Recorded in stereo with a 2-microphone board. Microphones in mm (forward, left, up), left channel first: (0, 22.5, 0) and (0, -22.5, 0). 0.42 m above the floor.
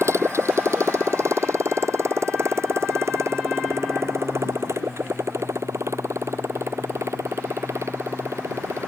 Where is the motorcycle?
80° right; by 8.9 s 85° right.